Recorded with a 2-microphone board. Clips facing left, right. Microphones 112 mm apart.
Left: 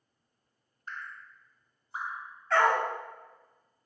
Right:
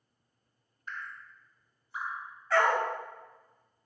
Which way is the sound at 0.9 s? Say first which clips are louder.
Even; 40° left (ahead or behind).